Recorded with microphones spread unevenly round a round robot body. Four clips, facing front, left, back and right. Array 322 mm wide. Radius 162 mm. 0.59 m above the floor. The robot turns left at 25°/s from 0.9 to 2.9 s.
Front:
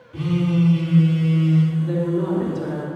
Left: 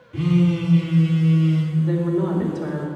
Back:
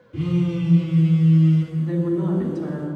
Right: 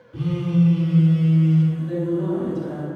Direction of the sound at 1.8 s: 120° left.